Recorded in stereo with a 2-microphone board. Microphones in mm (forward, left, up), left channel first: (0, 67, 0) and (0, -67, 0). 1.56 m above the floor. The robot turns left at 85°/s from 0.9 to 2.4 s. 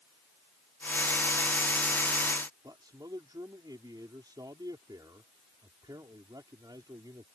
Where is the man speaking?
30° right (ahead or behind).